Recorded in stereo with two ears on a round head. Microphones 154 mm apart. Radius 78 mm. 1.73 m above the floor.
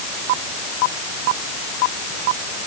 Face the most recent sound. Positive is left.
No sound to turn to.